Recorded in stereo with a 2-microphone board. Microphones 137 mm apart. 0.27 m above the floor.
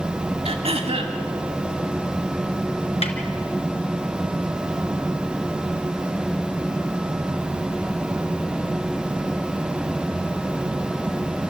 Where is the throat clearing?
50° right (ahead or behind), 2.5 m.